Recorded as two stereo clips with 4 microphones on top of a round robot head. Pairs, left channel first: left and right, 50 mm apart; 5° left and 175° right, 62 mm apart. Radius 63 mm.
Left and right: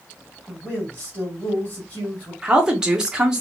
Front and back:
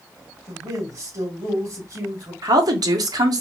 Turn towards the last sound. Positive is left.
turn(degrees=-170)